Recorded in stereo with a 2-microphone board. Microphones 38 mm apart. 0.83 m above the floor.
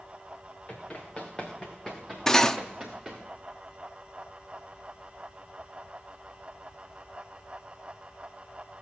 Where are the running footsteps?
30° left (ahead or behind), 4 m; by 3.2 s 10° right (ahead or behind), 4.5 m.